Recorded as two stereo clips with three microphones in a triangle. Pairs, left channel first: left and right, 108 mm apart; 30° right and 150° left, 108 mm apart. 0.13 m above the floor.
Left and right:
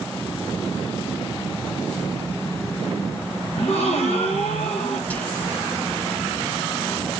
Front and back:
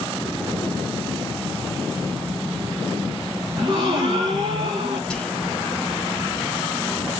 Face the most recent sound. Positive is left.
turn(degrees=40)